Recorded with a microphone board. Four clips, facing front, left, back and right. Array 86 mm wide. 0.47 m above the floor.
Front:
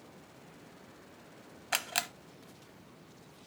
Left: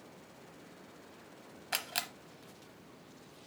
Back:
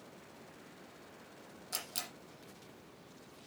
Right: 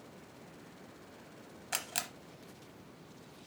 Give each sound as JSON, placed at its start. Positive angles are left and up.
{"t": 1.7, "sound": "a camera shutter", "azimuth_deg": 10, "distance_m": 0.8}